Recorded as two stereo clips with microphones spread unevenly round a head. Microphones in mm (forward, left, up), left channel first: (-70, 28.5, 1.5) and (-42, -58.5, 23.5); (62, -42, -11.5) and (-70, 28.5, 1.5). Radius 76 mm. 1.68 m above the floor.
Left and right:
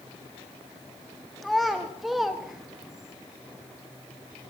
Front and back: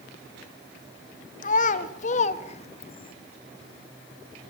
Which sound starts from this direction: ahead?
A child speaking, at 1.4 s.